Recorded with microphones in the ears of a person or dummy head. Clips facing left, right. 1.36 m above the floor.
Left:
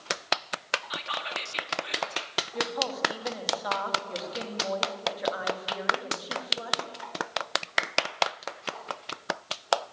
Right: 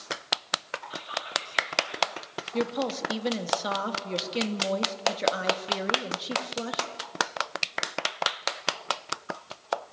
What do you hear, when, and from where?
0.9 s whispering: 75° left (ahead or behind), 2.5 m
2.5 s a woman speaking: 40° right (ahead or behind), 1.9 m